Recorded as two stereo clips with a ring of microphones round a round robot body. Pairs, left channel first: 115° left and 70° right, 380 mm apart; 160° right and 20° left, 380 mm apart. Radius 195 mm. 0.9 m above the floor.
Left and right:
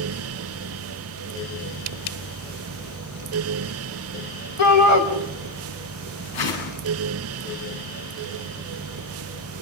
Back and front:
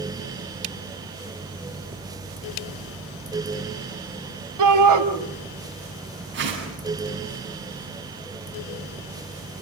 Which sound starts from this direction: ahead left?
A shout, at 4.6 s.